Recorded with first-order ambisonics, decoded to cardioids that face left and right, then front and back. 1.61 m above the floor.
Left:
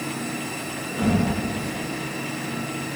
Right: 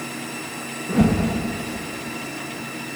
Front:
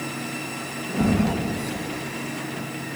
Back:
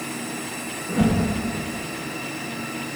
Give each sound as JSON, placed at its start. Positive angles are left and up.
{"t": 0.9, "sound": "a whoosh", "azimuth_deg": -105, "distance_m": 1.3}